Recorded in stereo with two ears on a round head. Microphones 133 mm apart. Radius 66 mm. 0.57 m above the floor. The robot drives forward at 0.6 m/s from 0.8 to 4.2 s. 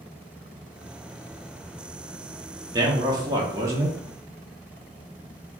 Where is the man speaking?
25° right (ahead or behind), 0.8 m; by 4.0 s 20° right (ahead or behind), 1.0 m.